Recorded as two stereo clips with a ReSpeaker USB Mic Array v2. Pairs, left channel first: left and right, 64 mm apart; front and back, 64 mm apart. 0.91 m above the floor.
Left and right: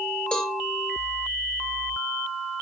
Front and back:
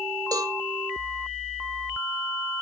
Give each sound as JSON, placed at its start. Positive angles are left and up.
{"t": 0.3, "sound": "a cowbell", "azimuth_deg": 165, "distance_m": 2.5}